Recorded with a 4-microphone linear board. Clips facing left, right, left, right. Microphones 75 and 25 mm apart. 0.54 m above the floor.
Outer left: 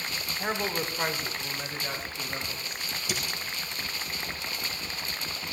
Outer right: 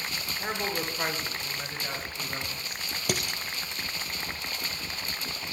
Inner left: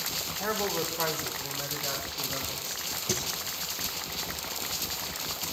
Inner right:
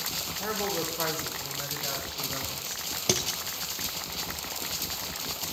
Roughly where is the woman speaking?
Centre.